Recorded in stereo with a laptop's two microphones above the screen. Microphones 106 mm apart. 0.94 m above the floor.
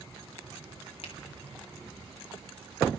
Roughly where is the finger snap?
Left.